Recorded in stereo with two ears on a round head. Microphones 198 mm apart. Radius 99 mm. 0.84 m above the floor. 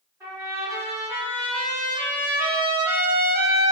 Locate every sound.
0.2 s a trumpet: 15° right (ahead or behind), 1.2 m